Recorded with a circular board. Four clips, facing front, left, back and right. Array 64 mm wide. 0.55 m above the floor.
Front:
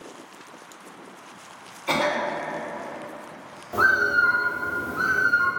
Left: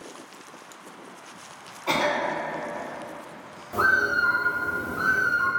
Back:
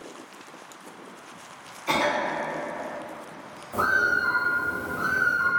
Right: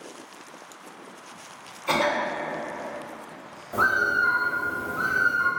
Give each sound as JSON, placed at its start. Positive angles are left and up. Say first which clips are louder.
{"t": 1.9, "sound": "a cough", "louder": "right 1 dB, front 1 dB", "azimuth_deg": 100, "distance_m": 1.0}
{"t": 3.7, "sound": "a bird", "louder": "even, front 3 dB", "azimuth_deg": 0, "distance_m": 0.6}